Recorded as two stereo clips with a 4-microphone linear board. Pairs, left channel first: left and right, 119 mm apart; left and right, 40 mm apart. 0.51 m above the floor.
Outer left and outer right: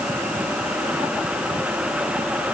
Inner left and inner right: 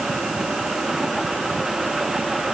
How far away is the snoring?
I don't hear snoring.